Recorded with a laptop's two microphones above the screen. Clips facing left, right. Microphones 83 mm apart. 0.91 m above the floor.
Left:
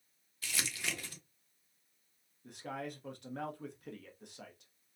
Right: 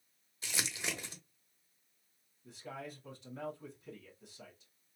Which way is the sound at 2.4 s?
65° left (ahead or behind).